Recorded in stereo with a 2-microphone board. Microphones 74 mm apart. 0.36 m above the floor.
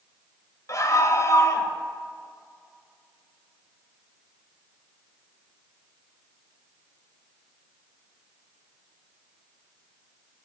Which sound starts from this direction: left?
A scream, at 0.7 s.